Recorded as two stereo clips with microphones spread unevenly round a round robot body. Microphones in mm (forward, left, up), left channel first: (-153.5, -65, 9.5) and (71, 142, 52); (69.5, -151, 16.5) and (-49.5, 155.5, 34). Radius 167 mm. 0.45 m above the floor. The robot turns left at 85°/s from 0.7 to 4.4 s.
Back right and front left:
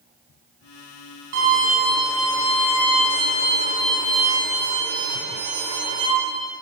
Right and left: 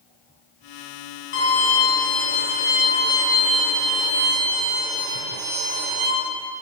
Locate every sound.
1.3 s a violin: 15° right, 8 m; by 6.1 s 85° left, 8 m